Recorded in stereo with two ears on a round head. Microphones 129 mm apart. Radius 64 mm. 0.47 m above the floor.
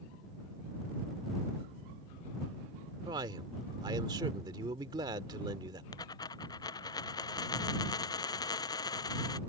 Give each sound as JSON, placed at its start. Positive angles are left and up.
{"t": 3.0, "sound": "a man speaking", "side_deg": -30}
{"t": 5.9, "sound": "a dropped coin", "side_deg": 30}